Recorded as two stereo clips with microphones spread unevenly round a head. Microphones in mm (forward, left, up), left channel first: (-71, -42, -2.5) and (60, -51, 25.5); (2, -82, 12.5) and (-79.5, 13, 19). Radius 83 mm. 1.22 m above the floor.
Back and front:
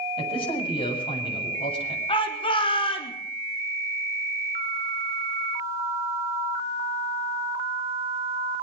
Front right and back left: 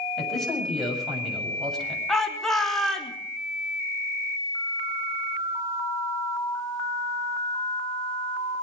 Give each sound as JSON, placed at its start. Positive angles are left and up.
{"t": 0.2, "sound": "a man speaking", "azimuth_deg": -135, "distance_m": 7.5}
{"t": 2.1, "sound": "a shout", "azimuth_deg": -135, "distance_m": 3.5}